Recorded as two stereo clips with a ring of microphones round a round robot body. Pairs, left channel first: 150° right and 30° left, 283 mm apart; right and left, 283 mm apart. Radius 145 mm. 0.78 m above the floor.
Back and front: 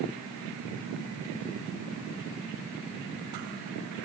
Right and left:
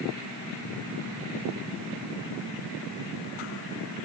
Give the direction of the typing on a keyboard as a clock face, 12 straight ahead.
I don't hear typing on a keyboard.